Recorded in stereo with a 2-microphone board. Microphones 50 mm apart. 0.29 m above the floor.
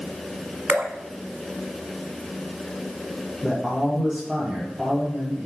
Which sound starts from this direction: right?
Dripping, at 0.7 s.